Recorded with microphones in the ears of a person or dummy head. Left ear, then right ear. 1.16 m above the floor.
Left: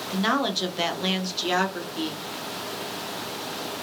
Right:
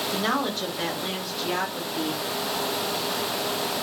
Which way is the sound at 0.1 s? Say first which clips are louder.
Left 4 dB; centre (ahead or behind).